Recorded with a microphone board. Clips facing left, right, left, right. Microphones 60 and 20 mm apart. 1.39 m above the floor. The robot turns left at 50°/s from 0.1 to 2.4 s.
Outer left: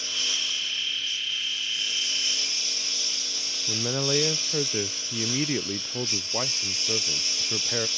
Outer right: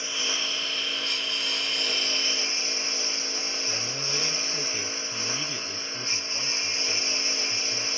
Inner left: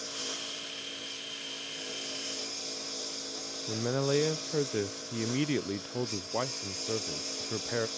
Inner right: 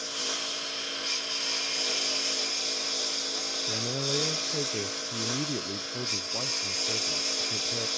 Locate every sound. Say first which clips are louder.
0.0 s a lawn mower: outer right 1 dB, inner right 5 dB; 25° right; by 8.0 s 140° right
3.7 s a man speaking: outer left 6 dB, inner left 3 dB; 50° left (ahead or behind)